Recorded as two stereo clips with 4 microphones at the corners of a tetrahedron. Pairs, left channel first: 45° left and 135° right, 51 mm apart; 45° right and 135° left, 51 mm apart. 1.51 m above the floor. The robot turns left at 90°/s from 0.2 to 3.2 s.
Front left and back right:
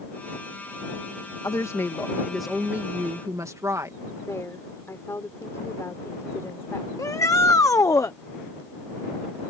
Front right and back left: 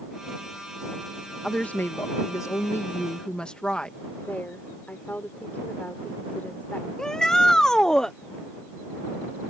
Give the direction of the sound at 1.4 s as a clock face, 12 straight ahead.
11 o'clock.